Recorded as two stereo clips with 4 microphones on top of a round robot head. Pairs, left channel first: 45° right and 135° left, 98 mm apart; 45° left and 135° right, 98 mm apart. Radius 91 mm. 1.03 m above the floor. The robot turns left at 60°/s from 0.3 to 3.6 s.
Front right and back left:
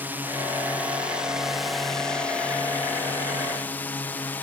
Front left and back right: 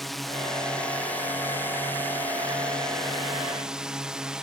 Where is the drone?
130° left; by 4.4 s 70° right.